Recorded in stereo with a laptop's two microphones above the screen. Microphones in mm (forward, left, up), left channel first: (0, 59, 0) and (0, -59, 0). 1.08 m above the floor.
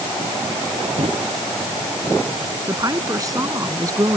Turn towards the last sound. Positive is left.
turn(degrees=-30)  # may be behind; listen again after turning